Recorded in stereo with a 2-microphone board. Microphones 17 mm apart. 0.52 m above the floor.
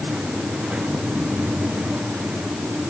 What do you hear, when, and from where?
Only background noise.